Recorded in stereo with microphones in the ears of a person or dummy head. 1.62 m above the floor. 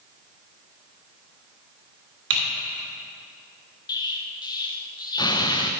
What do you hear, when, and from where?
2.3 s typing on a keyboard: 65° right (ahead or behind), 2.5 m
3.9 s an explosion: 20° left (ahead or behind), 0.6 m